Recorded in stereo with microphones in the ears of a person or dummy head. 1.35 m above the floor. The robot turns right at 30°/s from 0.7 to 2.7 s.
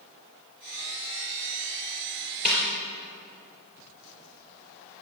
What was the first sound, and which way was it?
A snare drum, centre (ahead or behind).